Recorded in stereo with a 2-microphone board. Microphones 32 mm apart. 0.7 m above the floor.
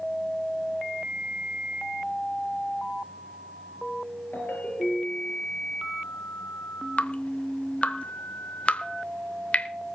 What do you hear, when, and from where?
4.3 s a ringtone: 85° left, 5.5 m
7.0 s dripping: 45° left (ahead or behind), 0.8 m